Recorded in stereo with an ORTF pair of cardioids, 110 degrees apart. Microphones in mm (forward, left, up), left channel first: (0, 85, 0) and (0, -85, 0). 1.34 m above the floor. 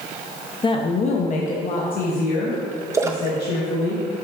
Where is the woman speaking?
25° left, 0.7 m; by 3.9 s 75° left, 2 m.